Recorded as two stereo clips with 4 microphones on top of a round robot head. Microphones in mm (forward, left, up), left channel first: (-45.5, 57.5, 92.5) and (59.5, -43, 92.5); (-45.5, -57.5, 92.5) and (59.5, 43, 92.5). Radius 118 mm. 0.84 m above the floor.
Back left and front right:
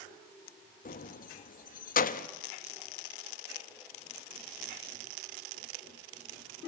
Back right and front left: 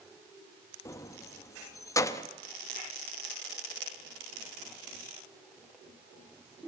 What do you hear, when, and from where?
0.8 s keys jangling: 155° left, 1.1 m